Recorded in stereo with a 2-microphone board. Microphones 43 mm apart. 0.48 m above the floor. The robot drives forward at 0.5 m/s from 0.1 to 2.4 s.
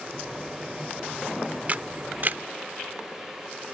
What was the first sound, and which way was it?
A camera shutter, 35° right (ahead or behind).